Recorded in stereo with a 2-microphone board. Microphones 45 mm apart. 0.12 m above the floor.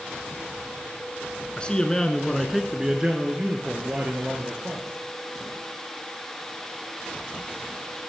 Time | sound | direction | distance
1.6 | a man speaking | 25° left (ahead or behind) | 1.1 m